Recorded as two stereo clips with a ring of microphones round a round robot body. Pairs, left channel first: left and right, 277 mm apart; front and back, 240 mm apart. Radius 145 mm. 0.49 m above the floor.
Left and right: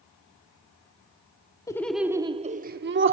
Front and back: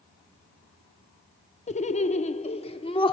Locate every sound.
1.7 s laughter: 25° left, 0.7 m; by 3.1 s 65° right, 0.9 m